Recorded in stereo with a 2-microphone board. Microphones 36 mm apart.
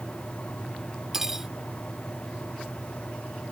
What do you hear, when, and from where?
1.1 s cutlery clinking: 15° right (ahead or behind)